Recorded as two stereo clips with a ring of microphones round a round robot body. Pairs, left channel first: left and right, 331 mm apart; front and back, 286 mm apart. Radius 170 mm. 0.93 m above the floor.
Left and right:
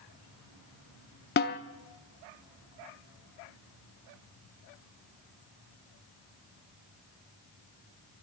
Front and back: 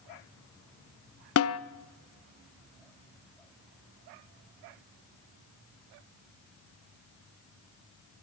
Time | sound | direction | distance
1.4 | a snare drum | 30° left | 0.6 m